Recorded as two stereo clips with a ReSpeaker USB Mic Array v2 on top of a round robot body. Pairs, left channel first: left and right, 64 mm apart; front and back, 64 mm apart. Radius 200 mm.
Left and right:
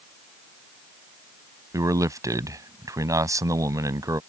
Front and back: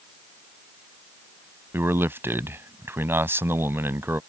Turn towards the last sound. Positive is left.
turn(degrees=-125)